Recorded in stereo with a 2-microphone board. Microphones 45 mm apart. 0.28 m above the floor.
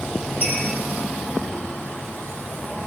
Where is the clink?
40° right (ahead or behind), 7.5 m.